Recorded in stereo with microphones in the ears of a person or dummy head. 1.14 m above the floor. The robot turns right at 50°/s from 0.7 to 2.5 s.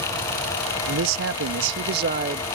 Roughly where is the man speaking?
Behind right.